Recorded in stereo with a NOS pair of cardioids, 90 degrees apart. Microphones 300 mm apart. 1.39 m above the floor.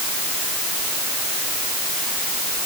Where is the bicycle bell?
I don't hear a bicycle bell.